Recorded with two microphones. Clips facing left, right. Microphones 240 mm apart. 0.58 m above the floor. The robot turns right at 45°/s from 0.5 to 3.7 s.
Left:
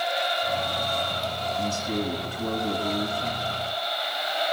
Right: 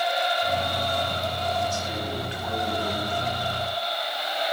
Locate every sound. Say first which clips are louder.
1.6 s a man speaking: left 3 dB; 100° left, 3.5 m; by 3.5 s 175° right, 3.5 m